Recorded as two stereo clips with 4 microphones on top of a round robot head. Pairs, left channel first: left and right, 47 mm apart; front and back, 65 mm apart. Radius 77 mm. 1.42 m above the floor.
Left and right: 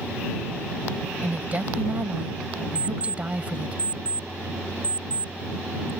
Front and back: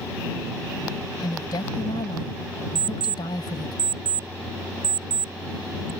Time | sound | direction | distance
1.2 | a woman speaking | 35° right | ?
2.8 | an alarm clock | 160° right | ?